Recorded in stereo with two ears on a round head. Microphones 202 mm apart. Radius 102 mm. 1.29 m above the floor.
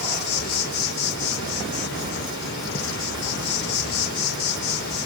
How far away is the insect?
About 5.5 m.